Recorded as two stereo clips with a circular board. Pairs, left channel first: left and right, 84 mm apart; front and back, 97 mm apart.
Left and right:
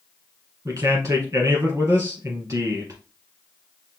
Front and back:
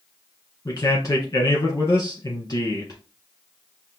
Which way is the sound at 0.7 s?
40° right.